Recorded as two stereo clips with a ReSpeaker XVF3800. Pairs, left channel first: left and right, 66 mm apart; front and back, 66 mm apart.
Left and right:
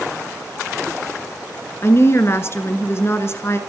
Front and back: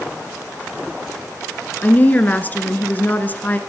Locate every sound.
1.8 s a woman speaking: 55° left, 1.5 m